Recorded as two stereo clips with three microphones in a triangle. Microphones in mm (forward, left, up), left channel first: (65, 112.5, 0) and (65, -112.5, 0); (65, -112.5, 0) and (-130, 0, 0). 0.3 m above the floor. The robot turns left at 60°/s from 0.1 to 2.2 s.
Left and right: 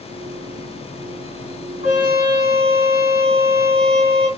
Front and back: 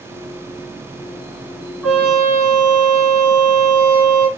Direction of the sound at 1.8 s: 60° left.